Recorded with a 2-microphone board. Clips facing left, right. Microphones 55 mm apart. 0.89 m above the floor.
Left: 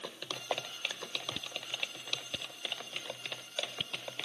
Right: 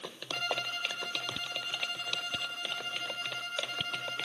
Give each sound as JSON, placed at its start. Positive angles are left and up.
{"t": 0.3, "sound": "a violin", "side_deg": -65}